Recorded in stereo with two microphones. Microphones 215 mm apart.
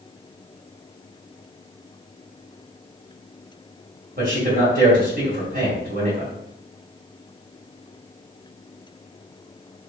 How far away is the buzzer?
No buzzer in this recording.